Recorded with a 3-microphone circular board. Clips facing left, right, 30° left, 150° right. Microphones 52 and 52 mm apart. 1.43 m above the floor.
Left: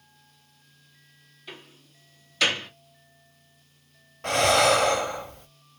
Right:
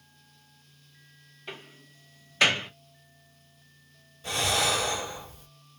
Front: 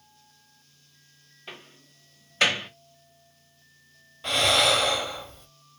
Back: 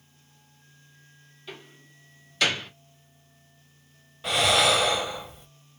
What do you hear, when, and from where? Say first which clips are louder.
1.5 s a door slam: right 2 dB, back 1 dB; 30° right, 1.2 m
4.2 s breathing: left 8 dB, back 1 dB; 125° left, 0.6 m